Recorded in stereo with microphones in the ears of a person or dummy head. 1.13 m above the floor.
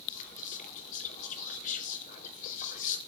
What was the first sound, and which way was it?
Whispering, 45° left (ahead or behind).